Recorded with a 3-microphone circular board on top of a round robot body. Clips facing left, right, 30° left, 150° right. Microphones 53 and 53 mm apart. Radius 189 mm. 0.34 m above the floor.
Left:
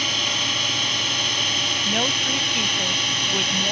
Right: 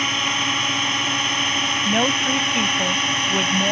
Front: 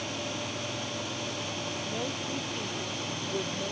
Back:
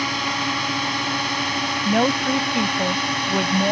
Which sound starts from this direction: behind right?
A drone, at 0.0 s.